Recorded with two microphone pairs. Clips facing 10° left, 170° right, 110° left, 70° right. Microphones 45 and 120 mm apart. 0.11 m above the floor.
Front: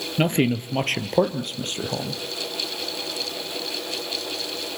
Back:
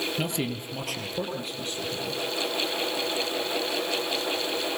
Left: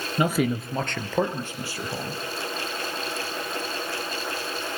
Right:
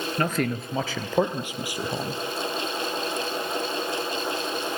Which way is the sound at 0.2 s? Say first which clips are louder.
Front 8 dB, left 4 dB; 35° left.